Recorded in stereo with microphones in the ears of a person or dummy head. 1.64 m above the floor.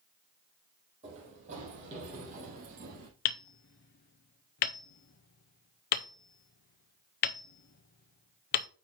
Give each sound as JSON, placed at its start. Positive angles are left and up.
{"t": 1.0, "sound": "running footsteps", "side_deg": -40, "distance_m": 4.5}
{"t": 3.2, "sound": "hammering", "side_deg": 35, "distance_m": 0.6}